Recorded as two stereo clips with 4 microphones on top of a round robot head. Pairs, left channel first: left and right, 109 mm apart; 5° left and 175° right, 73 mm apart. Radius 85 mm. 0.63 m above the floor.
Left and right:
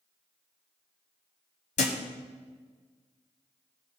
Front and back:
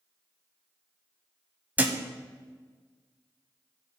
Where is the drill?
I don't hear a drill.